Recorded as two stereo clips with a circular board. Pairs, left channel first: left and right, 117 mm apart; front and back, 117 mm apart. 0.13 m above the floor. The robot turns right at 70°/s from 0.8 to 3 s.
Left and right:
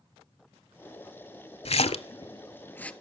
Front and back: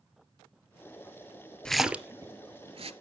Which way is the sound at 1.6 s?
80° left.